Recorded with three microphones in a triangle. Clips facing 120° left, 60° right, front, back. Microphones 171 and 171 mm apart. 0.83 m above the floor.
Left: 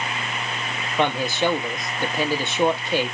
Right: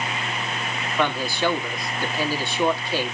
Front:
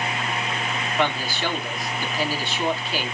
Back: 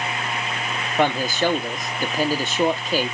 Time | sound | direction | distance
1.0 | a man speaking | straight behind | 1.2 m